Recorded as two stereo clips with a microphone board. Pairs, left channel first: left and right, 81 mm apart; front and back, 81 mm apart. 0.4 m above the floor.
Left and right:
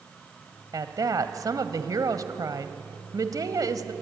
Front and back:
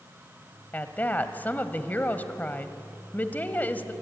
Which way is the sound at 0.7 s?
65° right.